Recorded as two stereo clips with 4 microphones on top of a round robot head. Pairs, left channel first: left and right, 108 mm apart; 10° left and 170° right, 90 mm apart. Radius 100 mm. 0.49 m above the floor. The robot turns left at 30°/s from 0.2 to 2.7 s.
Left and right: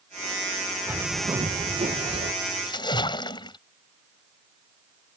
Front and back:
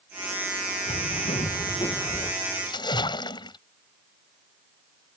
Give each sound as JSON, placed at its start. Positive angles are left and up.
{"t": 0.9, "sound": "a bird", "azimuth_deg": -15}
{"t": 2.6, "sound": "a splash", "azimuth_deg": 45}